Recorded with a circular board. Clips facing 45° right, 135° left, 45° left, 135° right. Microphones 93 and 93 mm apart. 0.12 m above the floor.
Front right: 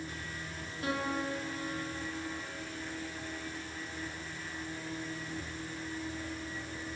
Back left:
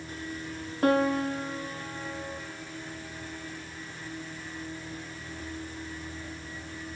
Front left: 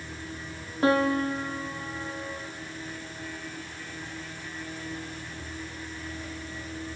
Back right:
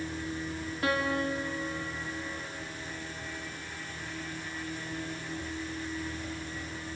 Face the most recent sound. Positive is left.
turn(degrees=100)